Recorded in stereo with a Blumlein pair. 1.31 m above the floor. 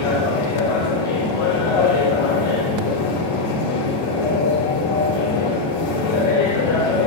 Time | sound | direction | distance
0.0 | a machine running | 55° left | 3.5 m